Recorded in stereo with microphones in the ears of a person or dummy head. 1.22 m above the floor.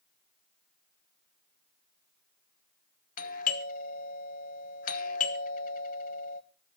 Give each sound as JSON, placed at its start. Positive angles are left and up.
{"t": 3.2, "sound": "a doorbell", "side_deg": 45, "distance_m": 1.1}